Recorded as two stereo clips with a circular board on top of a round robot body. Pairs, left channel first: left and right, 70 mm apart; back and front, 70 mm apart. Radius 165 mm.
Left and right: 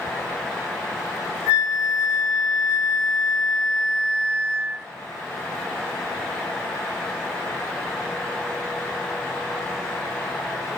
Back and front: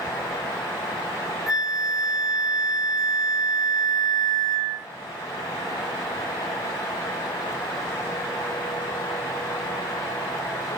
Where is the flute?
145° right, 1.9 m.